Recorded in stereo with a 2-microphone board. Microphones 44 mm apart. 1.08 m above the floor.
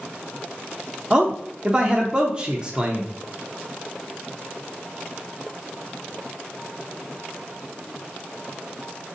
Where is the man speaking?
25° right (ahead or behind), 0.6 m.